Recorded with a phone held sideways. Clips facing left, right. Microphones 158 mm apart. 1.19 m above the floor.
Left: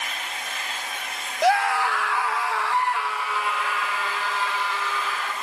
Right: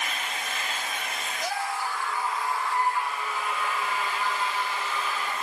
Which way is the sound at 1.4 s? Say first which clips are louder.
Left 11 dB; 70° left (ahead or behind).